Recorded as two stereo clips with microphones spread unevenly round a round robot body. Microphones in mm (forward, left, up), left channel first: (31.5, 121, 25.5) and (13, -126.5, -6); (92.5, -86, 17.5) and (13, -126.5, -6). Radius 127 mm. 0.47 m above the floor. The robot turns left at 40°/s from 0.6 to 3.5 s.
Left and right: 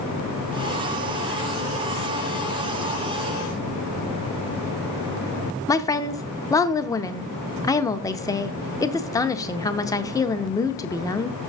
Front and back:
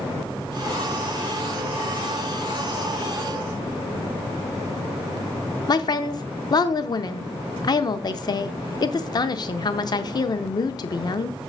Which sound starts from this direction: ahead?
A woman speaking, at 5.7 s.